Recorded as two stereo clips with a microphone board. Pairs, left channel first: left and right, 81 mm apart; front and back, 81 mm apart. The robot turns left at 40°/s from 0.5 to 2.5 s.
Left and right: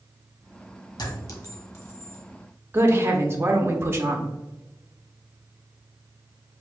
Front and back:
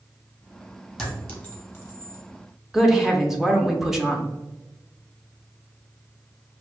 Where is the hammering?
I don't hear hammering.